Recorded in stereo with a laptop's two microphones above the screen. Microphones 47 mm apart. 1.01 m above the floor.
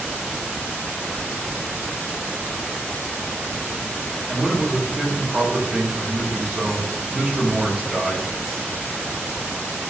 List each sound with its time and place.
4.3 s a man speaking: 20° right (ahead or behind), 2 m